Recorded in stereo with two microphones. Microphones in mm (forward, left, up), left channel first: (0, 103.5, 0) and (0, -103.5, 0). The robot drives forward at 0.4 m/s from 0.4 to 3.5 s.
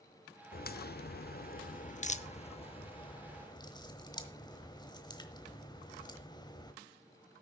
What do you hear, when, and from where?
0.5 s a crack: 45° left (ahead or behind), 0.5 m; by 6.7 s 20° left (ahead or behind), 1.1 m